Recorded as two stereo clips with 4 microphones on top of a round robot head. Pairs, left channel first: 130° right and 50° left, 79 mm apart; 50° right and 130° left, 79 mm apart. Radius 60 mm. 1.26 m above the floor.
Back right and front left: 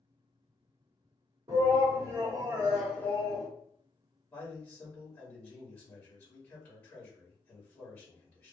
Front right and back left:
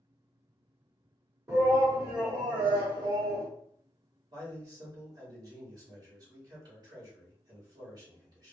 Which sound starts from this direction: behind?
A man speaking, at 4.3 s.